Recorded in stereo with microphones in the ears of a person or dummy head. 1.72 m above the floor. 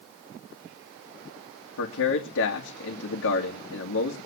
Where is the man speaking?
70° left (ahead or behind), 2.5 m.